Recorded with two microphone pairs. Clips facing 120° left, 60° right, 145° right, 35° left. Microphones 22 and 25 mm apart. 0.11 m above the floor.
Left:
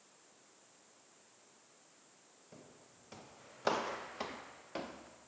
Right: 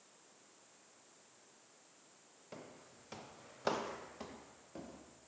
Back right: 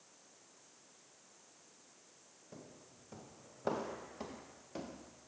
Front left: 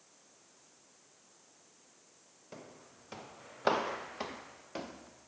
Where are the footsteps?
5° right, 1.5 m; by 5.3 s 100° left, 2 m.